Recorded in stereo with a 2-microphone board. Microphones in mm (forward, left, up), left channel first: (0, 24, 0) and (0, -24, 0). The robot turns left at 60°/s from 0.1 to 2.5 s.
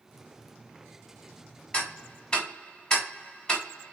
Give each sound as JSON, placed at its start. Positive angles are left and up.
{"t": 1.7, "sound": "ticking", "side_deg": 25, "distance_m": 1.2}